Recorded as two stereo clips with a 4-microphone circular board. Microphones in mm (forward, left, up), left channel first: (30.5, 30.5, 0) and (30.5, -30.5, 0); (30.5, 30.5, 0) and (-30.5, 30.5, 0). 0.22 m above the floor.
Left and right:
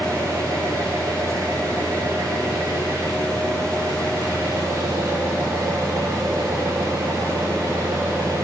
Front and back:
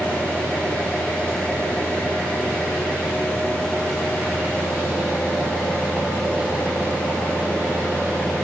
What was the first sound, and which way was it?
An engine running, 90° right.